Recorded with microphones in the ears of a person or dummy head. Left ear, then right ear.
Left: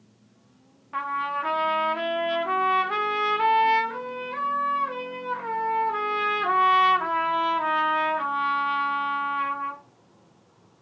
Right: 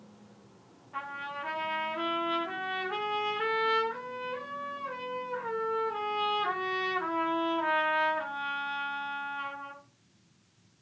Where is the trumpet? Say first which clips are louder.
Left 10 dB; 60° left (ahead or behind), 0.6 m.